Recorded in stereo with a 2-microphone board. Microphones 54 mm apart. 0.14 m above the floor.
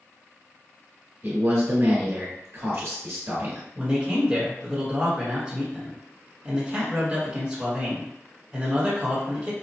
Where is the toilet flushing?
No toilet flushing in this recording.